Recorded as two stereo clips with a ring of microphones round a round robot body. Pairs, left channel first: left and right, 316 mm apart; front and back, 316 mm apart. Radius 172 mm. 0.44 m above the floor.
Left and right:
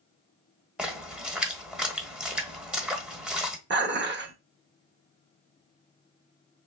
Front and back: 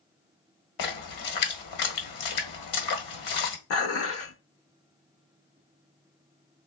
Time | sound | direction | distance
0.8 | a splash | 5° right | 1.1 m
3.7 | dishes clattering | 40° right | 0.8 m